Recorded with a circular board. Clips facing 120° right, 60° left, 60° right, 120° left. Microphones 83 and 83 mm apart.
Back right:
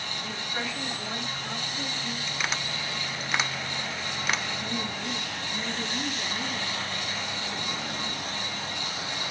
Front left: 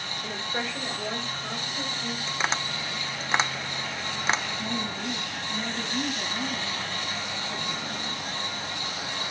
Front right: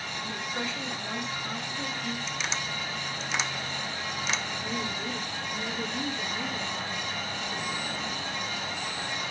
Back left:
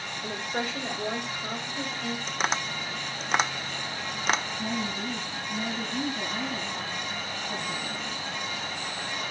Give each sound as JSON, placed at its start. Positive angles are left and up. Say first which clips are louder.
{"t": 0.2, "sound": "a woman speaking", "louder": "front left 3 dB, back left 4 dB", "azimuth_deg": 105, "distance_m": 3.5}
{"t": 2.3, "sound": "tapping", "louder": "front left 4 dB, back left 4 dB", "azimuth_deg": 115, "distance_m": 0.6}
{"t": 4.6, "sound": "a woman speaking", "louder": "front left 1 dB, back left 2 dB", "azimuth_deg": 80, "distance_m": 4.0}